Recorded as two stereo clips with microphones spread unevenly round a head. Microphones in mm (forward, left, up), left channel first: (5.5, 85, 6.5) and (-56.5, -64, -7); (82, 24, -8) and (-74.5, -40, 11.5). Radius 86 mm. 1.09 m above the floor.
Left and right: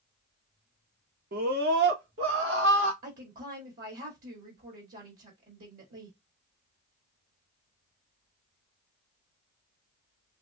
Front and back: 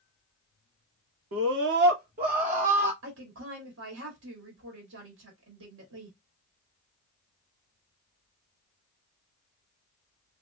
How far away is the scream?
About 0.9 m.